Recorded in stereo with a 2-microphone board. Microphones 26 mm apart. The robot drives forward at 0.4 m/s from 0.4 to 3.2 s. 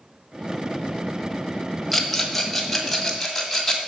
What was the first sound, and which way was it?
A rattle, centre (ahead or behind).